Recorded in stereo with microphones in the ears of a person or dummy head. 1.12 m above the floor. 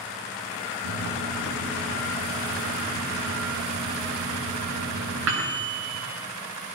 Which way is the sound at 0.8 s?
85° right.